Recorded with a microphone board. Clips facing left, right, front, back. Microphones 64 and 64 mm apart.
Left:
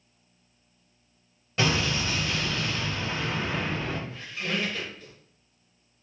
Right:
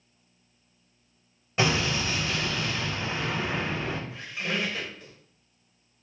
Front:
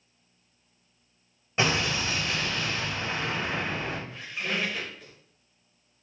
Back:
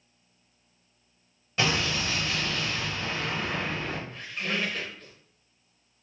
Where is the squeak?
65° right, 0.9 m.